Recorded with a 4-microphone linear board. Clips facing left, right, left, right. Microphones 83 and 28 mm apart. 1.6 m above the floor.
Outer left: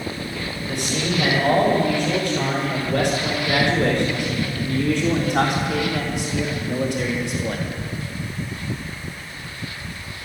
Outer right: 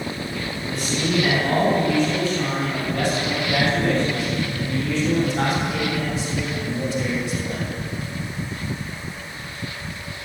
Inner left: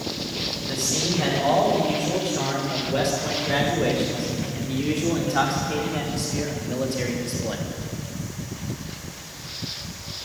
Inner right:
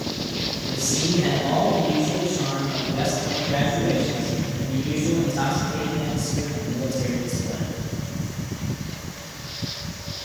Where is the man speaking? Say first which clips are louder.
Outer right 1 dB, inner right 2 dB; 65° left (ahead or behind), 8 m; by 7.7 s 70° left (ahead or behind), 3 m.